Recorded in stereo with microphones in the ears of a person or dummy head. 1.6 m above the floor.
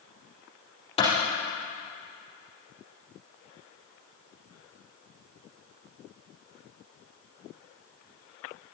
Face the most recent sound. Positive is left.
turn(degrees=30)  # may be behind; listen again after turning